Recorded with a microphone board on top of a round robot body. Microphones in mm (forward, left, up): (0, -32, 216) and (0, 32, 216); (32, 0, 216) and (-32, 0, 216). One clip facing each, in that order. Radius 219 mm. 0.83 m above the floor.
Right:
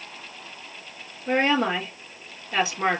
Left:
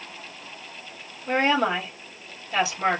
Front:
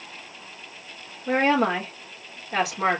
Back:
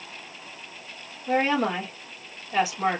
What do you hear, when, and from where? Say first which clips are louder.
1.3 s a woman speaking: even, front 2 dB; 30° right, 3.5 m